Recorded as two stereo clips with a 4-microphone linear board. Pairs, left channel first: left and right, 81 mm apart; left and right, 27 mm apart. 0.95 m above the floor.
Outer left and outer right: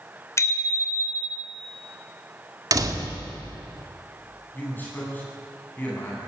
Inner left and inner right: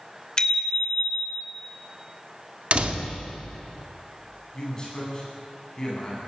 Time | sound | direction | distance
0.4 | a bicycle bell | 35° left (ahead or behind) | 2.5 m
2.7 | a door slam | 45° right (ahead or behind) | 1.8 m
4.5 | a man speaking | 25° left (ahead or behind) | 10 m